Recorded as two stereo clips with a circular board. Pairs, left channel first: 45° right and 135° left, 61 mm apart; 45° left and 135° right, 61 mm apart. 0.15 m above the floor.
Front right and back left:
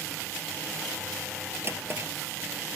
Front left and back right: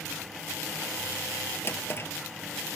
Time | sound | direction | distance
1.6 | a drawer | 90° left | 1.7 m